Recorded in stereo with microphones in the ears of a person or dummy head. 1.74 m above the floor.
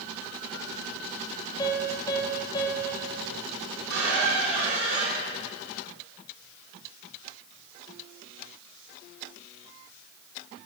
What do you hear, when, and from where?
1.6 s a piano: 25° left (ahead or behind), 1.5 m
3.8 s a squeak: 70° right (ahead or behind), 3 m